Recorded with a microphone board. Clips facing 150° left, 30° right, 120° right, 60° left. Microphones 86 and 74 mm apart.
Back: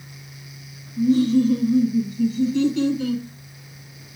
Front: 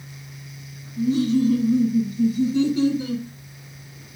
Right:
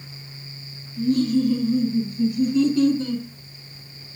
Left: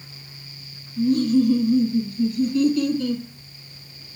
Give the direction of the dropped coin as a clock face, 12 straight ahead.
I don't hear a dropped coin.